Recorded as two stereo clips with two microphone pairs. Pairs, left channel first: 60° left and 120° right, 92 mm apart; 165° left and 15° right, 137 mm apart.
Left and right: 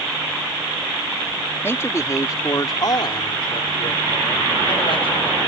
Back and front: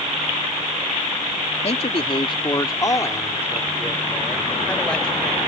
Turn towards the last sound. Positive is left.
turn(degrees=80)